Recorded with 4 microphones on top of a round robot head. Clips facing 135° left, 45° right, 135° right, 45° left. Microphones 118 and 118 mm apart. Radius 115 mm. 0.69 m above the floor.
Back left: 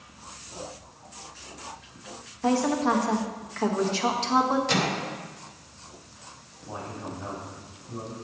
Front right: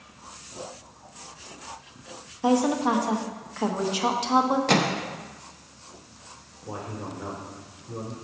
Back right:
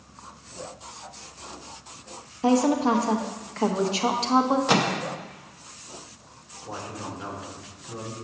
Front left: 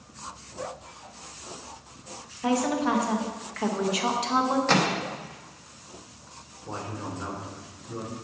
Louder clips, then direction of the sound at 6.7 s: Front right 1 dB, even; 35° right.